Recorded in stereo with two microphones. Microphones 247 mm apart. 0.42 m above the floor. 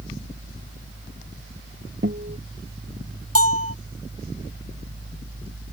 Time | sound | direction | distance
2.0 | a guitar | 45° right (ahead or behind) | ?
3.4 | a bell | 80° right | ?